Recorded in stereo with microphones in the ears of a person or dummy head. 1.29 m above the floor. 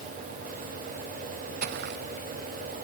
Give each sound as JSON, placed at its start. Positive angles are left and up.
{"t": 1.6, "sound": "footsteps", "side_deg": -55}